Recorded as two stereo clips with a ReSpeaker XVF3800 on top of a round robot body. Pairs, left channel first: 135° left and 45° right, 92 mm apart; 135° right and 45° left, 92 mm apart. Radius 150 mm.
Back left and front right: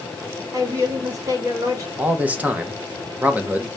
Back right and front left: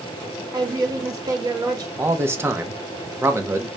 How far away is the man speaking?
About 1.0 m.